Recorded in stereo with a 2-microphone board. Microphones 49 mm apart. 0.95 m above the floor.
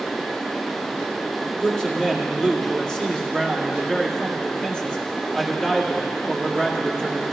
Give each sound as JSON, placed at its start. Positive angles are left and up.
{"t": 1.6, "sound": "a man speaking", "side_deg": 15, "distance_m": 1.9}